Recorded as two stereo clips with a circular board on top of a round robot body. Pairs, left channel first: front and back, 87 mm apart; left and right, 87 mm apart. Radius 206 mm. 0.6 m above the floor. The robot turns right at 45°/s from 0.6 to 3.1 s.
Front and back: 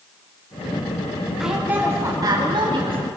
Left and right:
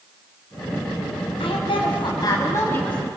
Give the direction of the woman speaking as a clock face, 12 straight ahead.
9 o'clock.